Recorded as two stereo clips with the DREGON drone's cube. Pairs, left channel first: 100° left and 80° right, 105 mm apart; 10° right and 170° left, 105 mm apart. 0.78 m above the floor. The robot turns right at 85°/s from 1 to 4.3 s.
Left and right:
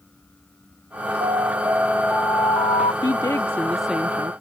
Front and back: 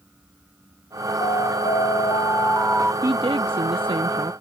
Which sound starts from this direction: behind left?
A woman speaking, at 3.0 s.